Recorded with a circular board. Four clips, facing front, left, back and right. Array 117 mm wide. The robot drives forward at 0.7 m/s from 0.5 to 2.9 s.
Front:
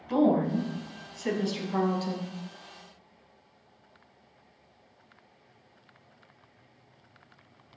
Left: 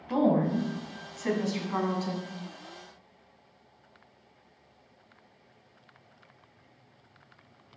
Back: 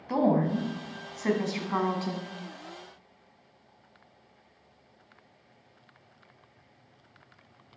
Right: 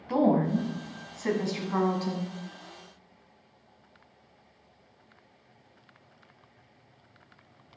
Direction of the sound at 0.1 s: 155° right.